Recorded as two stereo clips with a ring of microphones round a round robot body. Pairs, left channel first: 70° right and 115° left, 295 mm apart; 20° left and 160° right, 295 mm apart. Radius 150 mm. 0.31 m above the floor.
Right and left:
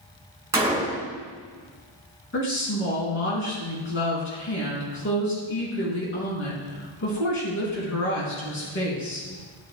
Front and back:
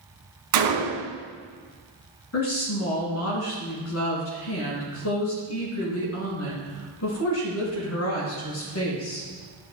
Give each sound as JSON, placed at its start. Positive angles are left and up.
{"t": 0.5, "sound": "a gunshot", "azimuth_deg": -165, "distance_m": 2.0}
{"t": 2.3, "sound": "a woman speaking", "azimuth_deg": -20, "distance_m": 3.0}